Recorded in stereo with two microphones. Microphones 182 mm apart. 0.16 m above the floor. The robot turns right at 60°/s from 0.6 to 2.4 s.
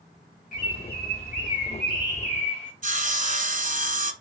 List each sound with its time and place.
0.5 s a bird: 65° left, 2.5 m; by 2.7 s 175° left, 2.5 m
2.8 s sawing: 45° right (ahead or behind), 1.0 m